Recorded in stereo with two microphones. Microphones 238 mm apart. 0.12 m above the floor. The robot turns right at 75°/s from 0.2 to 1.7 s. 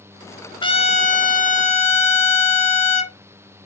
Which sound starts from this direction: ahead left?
A trumpet, at 0.6 s.